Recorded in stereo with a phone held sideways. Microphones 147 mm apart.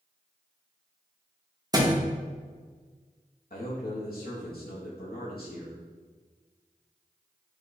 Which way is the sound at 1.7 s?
25° right (ahead or behind).